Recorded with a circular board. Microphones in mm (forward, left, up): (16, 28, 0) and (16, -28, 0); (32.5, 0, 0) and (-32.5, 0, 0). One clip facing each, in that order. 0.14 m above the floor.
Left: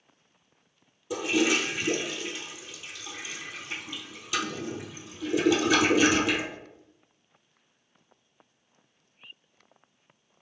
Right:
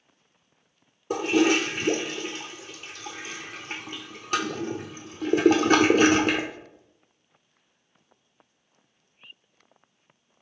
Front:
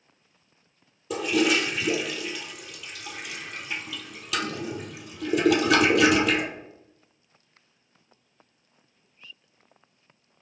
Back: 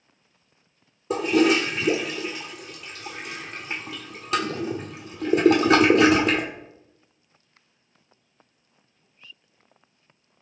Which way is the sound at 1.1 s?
130° right.